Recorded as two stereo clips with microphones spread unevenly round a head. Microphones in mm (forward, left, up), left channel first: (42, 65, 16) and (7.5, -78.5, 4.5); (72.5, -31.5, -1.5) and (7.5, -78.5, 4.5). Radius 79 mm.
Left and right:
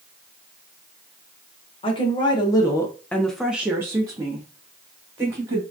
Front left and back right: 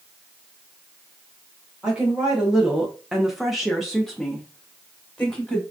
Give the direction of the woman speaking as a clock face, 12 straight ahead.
8 o'clock.